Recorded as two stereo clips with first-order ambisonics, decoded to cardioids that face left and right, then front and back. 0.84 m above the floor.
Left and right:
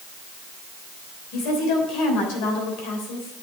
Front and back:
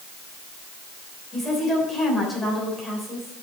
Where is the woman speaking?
85° left, 3 m.